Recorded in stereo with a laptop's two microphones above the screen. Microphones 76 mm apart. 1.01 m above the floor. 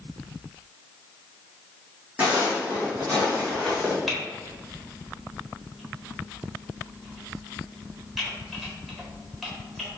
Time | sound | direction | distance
2.2 | footsteps | 20° right (ahead or behind) | 2.0 m
4.1 | typing on a keyboard | centre (ahead or behind) | 1.2 m